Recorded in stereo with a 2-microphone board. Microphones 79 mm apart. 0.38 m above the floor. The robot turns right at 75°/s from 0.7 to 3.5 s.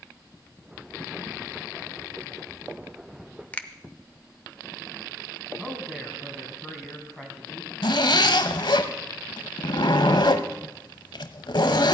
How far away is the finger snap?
About 0.6 m.